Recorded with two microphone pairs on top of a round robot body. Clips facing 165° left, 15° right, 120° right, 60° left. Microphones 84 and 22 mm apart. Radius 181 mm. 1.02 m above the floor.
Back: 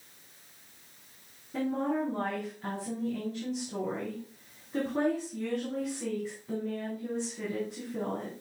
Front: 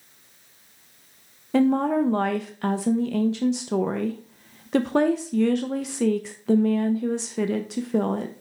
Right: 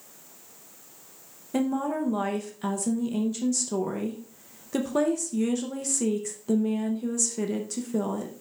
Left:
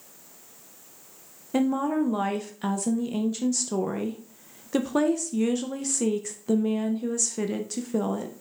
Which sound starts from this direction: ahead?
A woman speaking, at 1.5 s.